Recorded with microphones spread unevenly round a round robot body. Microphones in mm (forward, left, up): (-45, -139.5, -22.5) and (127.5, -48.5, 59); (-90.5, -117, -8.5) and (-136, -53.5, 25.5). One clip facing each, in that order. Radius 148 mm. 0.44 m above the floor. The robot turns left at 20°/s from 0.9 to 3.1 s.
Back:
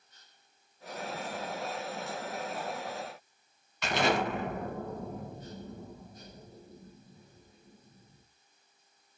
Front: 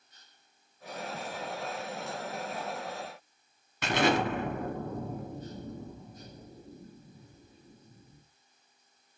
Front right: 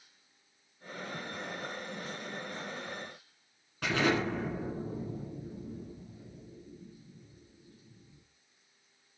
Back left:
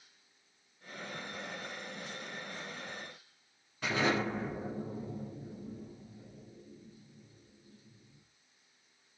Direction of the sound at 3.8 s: 5° right.